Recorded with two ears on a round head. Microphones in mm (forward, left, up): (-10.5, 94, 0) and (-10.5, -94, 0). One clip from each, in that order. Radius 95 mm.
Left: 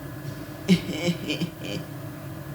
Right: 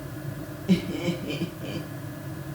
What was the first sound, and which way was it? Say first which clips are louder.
Laughter: left 2 dB; 50° left (ahead or behind).